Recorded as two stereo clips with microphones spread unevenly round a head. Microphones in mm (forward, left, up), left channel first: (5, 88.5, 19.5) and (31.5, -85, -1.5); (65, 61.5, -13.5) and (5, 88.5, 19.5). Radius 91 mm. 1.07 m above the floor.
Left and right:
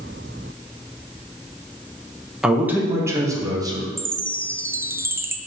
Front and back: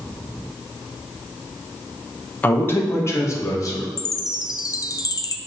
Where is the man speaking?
Straight ahead, 1.0 m; by 3.9 s 15° right, 2 m.